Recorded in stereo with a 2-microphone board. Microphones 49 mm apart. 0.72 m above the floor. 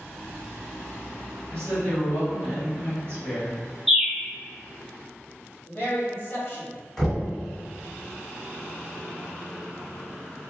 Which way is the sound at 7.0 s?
Centre (ahead or behind).